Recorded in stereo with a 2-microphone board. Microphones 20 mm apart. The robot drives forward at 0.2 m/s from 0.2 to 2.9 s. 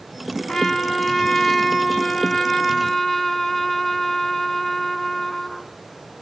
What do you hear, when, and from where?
0.5 s a trumpet: 15° left (ahead or behind), 0.8 m